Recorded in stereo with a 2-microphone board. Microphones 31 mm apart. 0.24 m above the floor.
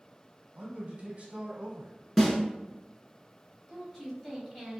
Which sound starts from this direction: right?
A man speaking, at 0.6 s.